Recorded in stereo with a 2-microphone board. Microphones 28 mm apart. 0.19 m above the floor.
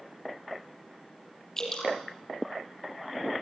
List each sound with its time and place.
1.6 s dripping: 20° left (ahead or behind), 6 m